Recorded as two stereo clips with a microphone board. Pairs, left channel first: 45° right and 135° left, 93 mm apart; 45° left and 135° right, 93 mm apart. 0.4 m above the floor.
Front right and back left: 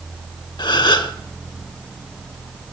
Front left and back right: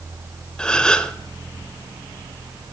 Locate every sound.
0.6 s a gasp: 35° right, 0.7 m